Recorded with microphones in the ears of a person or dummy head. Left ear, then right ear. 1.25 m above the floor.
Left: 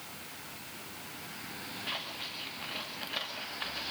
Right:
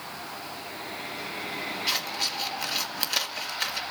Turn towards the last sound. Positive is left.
turn(degrees=-85)